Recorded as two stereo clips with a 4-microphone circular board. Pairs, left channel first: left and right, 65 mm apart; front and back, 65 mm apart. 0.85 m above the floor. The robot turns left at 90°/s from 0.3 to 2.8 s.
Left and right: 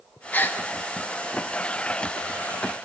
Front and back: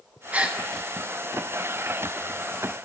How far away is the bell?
I don't hear a bell.